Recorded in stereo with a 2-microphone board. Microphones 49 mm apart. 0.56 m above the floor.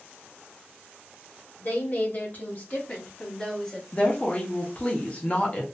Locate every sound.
1.6 s a woman speaking: 45° left (ahead or behind), 1.3 m; by 3.8 s 15° left (ahead or behind), 1.3 m
3.9 s a woman speaking: 30° left (ahead or behind), 0.8 m